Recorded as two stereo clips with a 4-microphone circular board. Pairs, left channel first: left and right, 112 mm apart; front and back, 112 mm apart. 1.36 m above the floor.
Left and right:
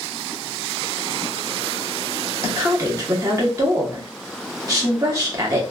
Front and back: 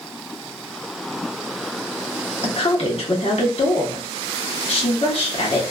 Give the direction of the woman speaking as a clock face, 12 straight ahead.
1 o'clock.